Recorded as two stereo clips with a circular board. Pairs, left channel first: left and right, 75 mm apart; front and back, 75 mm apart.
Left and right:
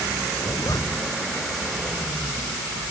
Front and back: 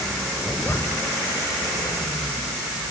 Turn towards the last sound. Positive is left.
turn(degrees=55)